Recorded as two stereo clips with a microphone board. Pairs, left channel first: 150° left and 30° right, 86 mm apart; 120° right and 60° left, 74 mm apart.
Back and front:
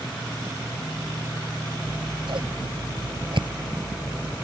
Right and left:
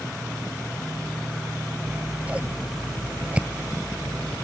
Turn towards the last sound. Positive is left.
turn(degrees=-10)